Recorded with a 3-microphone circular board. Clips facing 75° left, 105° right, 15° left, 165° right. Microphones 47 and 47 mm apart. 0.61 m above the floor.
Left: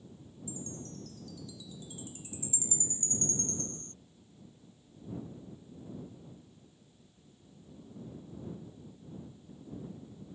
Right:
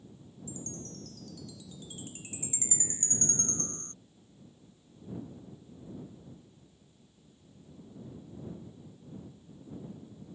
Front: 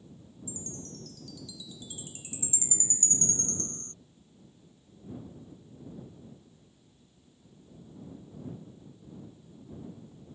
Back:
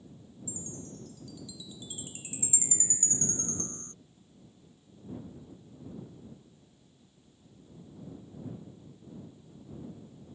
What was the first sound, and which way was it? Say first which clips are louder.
A chime: even, even; 100° right.